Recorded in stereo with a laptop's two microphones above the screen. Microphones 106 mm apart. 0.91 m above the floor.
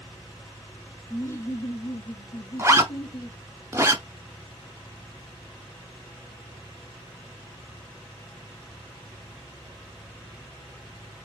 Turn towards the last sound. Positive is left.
turn(degrees=-25)  # may be behind; listen again after turning